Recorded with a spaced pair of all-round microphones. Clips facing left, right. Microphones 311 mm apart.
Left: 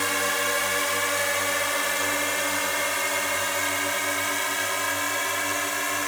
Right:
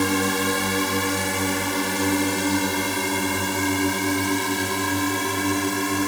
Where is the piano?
I don't hear a piano.